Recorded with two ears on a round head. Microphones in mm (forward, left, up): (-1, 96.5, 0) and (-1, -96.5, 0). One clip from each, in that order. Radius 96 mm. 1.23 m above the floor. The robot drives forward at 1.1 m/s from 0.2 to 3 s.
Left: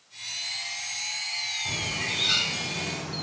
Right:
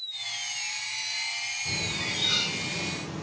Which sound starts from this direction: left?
A bird, at 1.6 s.